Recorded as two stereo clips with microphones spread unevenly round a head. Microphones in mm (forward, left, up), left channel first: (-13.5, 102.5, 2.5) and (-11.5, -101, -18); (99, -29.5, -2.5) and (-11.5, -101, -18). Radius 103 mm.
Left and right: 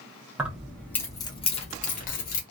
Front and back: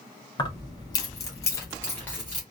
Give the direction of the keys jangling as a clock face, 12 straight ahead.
12 o'clock.